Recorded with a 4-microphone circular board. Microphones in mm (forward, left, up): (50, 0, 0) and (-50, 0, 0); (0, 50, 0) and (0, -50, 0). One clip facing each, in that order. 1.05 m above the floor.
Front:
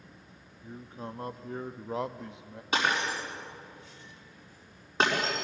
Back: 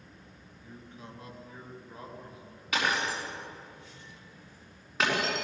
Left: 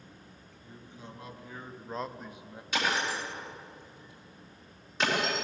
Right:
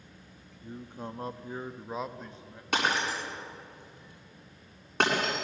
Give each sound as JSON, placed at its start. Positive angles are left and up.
{"t": 0.6, "sound": "a man speaking", "azimuth_deg": -60, "distance_m": 1.6}
{"t": 2.7, "sound": "breaking glass", "azimuth_deg": -60, "distance_m": 7.0}